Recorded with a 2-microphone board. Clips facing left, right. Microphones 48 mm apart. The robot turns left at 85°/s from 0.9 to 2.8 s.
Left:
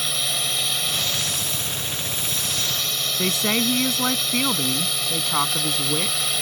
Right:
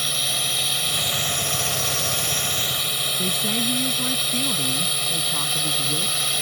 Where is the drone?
Centre (ahead or behind).